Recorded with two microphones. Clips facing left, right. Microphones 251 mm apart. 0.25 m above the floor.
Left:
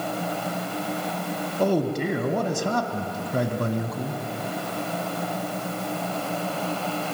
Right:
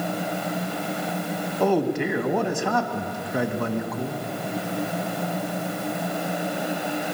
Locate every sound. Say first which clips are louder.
1.6 s a man speaking: right 1 dB; 40° left (ahead or behind), 2 m